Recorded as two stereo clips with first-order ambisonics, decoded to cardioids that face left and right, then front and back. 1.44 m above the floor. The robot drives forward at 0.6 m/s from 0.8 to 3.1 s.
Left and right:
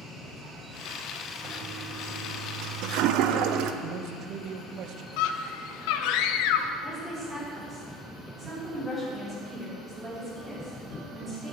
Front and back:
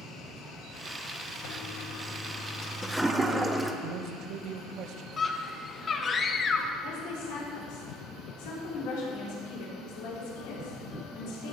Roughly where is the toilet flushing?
Ahead right.